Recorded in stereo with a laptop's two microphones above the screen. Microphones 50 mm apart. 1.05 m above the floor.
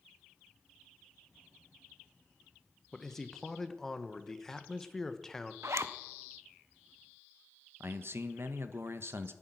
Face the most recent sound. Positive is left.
turn(degrees=-55)  # may be behind; listen again after turning